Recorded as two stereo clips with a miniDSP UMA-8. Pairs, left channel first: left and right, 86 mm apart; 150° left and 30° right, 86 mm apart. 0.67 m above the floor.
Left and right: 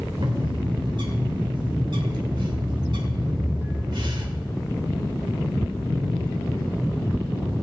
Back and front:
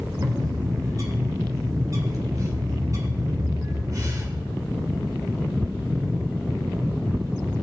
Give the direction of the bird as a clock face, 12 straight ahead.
3 o'clock.